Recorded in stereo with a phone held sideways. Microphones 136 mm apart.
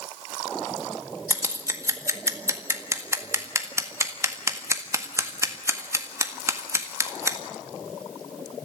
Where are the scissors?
20° right (ahead or behind), 1.8 m.